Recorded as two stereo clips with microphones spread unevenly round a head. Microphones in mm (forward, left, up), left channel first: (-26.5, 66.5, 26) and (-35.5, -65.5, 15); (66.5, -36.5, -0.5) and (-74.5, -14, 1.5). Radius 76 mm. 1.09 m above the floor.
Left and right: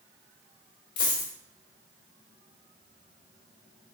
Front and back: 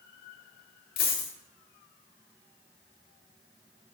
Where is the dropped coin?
25° left, 2.0 m.